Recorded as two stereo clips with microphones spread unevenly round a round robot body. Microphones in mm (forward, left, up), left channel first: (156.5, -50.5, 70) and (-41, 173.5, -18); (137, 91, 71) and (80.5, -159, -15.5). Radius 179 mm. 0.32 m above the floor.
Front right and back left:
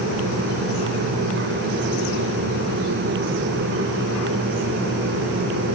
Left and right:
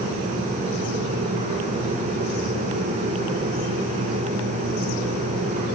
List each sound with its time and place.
Only background noise.